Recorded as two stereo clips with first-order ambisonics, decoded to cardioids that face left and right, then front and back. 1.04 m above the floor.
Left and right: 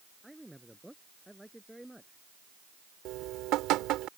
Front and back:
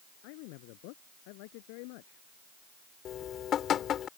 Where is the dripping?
55° right.